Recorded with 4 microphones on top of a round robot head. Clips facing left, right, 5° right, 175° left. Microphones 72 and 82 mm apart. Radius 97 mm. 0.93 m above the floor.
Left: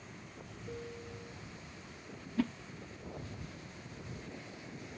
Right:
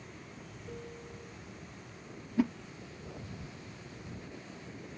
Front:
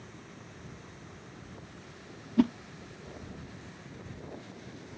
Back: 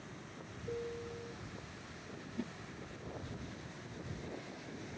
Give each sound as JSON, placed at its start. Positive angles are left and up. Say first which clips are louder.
{"t": 0.7, "sound": "a piano", "louder": "left 1 dB, back 8 dB", "azimuth_deg": 175}
{"t": 2.4, "sound": "a whoosh", "louder": "right 4 dB, front 18 dB", "azimuth_deg": -15}